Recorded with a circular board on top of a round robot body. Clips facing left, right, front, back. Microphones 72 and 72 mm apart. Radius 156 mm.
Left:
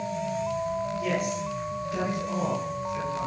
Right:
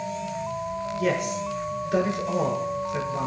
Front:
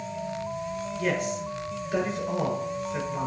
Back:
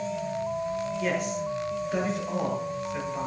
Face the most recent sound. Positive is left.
turn(degrees=-90)